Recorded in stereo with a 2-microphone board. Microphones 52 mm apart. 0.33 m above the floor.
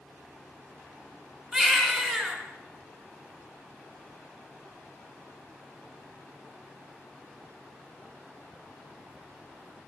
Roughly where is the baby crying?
Centre.